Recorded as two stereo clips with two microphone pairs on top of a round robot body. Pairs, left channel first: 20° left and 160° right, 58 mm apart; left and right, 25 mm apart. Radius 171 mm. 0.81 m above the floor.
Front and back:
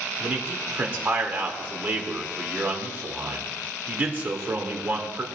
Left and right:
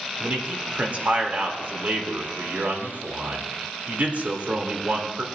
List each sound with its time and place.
0.2 s a man speaking: 105° right, 3 m